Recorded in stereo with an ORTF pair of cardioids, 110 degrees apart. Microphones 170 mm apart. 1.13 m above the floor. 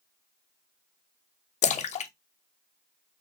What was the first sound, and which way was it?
A splash, 40° left.